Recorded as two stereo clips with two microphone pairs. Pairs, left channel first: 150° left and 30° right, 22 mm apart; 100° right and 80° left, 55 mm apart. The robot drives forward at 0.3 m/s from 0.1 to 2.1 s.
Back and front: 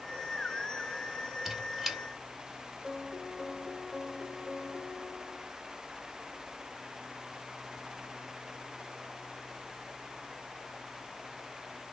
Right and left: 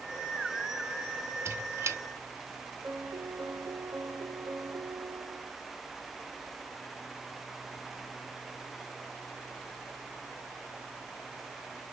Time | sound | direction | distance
1.4 | a squeak | 50° left | 1.4 m
2.8 | a piano | 75° left | 1.5 m